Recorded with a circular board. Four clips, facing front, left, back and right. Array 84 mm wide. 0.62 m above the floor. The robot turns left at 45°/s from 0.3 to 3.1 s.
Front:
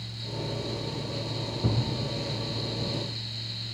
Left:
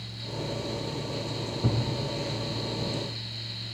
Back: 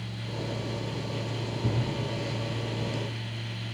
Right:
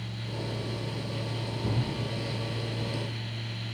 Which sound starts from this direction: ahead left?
A thud, at 1.6 s.